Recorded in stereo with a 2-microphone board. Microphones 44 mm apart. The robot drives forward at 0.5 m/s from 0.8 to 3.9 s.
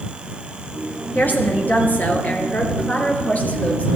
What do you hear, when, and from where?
1.1 s a woman speaking: 45° left (ahead or behind), 3 m; by 4.0 s 30° left (ahead or behind), 4 m